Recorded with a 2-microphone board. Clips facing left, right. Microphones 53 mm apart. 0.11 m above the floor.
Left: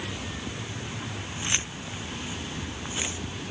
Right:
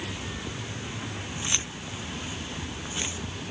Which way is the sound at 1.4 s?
25° left (ahead or behind).